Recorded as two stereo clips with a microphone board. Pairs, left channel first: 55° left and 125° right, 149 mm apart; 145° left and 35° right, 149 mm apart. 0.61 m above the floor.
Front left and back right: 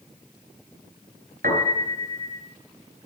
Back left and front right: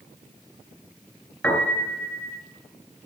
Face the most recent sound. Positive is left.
turn(degrees=-140)